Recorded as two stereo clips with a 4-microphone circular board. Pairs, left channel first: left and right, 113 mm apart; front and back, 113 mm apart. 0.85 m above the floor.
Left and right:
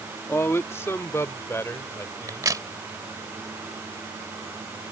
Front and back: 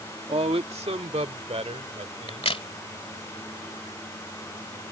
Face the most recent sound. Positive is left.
turn(degrees=-30)